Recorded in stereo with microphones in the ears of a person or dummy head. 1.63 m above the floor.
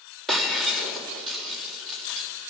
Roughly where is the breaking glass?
Centre.